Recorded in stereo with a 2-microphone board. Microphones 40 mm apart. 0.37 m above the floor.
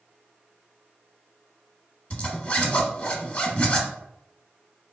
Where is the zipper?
35° left (ahead or behind), 0.7 m.